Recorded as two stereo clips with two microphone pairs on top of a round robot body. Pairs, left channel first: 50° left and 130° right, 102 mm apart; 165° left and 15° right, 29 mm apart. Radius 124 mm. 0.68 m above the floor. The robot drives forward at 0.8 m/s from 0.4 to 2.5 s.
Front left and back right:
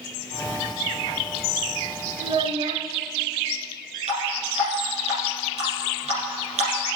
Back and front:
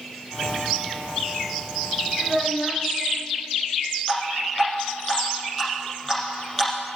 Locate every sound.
2.2 s a child speaking: 100° right, 0.8 m; by 2.9 s 120° right, 0.9 m
4.1 s dripping: 125° right, 4 m